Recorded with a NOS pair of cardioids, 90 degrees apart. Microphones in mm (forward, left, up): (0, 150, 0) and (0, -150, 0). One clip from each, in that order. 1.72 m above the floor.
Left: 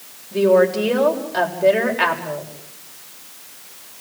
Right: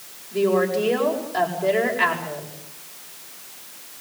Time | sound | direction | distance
0.3 | a woman speaking | 35° left | 8 m